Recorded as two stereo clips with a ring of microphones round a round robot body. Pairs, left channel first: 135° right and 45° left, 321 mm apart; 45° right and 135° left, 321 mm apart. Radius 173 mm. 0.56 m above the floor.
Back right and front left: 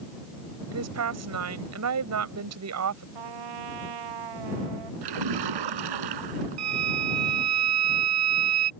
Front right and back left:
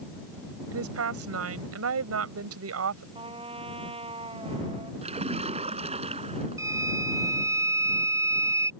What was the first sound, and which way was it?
A woman speaking, 90° left.